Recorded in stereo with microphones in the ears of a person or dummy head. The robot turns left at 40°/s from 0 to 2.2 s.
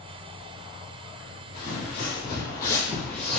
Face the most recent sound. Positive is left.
turn(degrees=0)  # may be behind; listen again after turning